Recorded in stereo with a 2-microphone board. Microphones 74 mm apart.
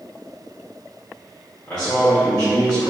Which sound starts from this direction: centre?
A man speaking, at 1.7 s.